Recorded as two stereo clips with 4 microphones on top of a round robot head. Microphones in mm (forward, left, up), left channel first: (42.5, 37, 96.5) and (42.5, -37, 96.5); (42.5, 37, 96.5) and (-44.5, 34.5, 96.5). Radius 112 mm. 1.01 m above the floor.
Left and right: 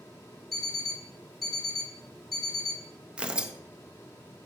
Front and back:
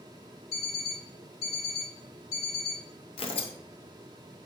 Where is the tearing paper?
10° right, 0.7 m.